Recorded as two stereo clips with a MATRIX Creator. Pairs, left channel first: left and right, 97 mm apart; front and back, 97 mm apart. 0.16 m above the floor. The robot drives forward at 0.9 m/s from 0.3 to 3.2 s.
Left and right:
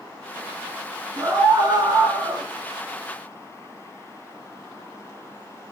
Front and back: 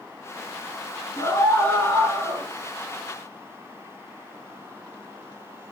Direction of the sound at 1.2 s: 40° right.